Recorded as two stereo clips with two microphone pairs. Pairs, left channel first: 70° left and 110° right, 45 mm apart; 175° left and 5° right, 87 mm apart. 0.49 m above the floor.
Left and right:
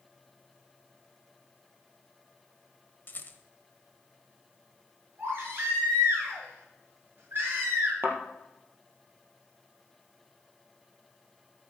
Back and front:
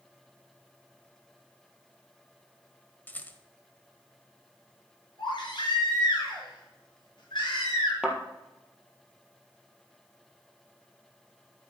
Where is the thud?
85° right, 2.5 m.